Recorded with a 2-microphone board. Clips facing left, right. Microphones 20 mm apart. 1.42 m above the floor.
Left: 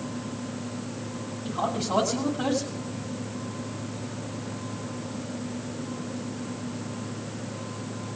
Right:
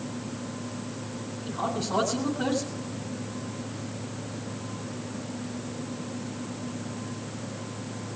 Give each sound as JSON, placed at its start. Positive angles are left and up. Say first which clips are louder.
{"t": 1.4, "sound": "a man speaking", "louder": "left 2 dB", "side_deg": 75, "distance_m": 9.5}